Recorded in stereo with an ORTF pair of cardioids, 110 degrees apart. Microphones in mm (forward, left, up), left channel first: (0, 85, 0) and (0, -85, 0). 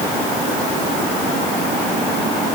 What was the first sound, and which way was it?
Only background noise.